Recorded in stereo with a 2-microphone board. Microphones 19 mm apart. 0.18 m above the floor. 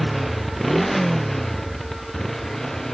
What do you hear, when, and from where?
0.0 s a motorcycle: 5° left (ahead or behind); by 2.9 s 20° left (ahead or behind)